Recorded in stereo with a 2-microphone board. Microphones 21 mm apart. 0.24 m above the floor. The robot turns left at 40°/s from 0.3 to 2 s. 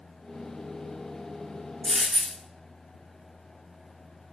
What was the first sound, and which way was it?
A dropped coin, 75° right (ahead or behind).